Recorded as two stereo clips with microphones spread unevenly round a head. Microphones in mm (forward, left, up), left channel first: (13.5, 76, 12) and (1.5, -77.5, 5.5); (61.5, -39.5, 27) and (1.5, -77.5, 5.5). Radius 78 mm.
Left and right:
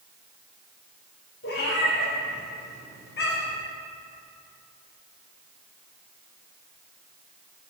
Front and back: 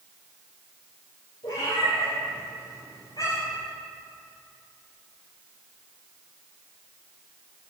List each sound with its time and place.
1.4 s a cat meowing: 70° left, 4.5 m; by 3.6 s 85° left, 3.5 m